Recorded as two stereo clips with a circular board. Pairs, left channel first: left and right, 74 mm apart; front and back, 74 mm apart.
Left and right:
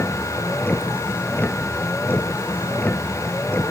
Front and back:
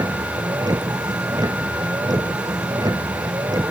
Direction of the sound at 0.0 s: 155° left.